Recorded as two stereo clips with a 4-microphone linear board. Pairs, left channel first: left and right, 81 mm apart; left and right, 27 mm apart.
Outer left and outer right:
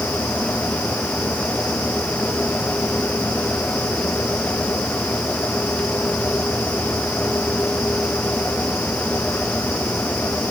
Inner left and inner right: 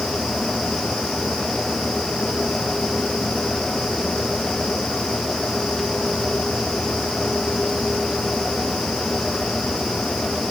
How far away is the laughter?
No laughter in this recording.